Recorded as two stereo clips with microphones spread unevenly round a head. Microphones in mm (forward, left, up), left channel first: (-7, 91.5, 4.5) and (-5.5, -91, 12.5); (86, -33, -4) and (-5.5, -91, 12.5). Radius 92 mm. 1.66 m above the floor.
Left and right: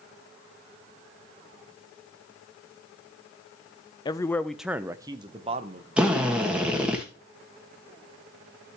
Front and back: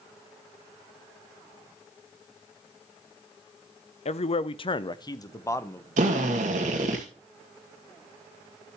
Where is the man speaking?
25° left, 0.7 m; by 5.9 s 40° right, 1.2 m.